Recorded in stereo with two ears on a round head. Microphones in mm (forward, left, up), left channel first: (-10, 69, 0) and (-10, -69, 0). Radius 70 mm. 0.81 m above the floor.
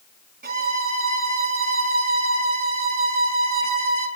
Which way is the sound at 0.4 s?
60° right (ahead or behind).